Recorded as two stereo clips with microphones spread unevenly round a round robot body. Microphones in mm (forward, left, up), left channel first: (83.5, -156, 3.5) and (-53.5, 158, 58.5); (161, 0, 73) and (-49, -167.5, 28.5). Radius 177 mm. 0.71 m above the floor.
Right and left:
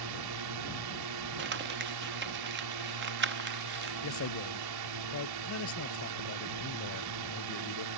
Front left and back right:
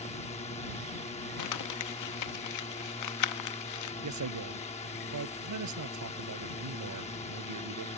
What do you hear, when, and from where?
0.0 s a drone: 110° left
1.4 s crumpling: 50° left
4.0 s a man speaking: 120° right